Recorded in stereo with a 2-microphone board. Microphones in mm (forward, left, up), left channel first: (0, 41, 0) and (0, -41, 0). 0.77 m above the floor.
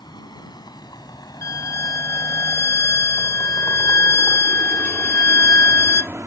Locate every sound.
0.0 s a vehicle: 60° left (ahead or behind); by 6.3 s 35° right (ahead or behind)
1.4 s a violin: 40° left (ahead or behind)